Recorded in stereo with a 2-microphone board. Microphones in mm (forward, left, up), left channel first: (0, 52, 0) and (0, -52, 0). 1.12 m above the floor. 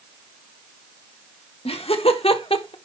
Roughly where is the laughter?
Left.